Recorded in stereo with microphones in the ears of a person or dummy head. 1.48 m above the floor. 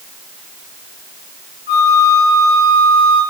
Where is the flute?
55° left (ahead or behind), 2.5 m.